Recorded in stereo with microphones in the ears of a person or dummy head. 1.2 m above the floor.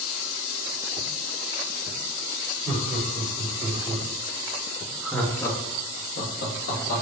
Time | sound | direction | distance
2.6 | laughter | 40° right (ahead or behind) | 1.7 m